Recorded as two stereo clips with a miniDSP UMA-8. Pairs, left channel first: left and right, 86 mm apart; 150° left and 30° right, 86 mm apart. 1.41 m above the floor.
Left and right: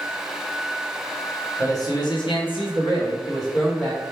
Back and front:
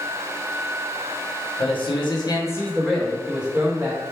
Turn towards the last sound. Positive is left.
turn(degrees=30)